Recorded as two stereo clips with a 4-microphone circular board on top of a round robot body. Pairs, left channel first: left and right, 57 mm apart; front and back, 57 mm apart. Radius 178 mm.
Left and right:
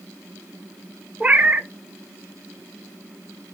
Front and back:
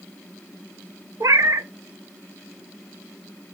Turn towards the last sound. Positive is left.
turn(degrees=-155)